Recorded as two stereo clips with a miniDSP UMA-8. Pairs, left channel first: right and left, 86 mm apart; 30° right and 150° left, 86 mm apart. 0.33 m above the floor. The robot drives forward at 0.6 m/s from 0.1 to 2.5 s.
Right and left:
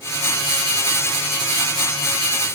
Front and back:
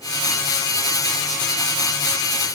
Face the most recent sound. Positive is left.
No sound to turn to.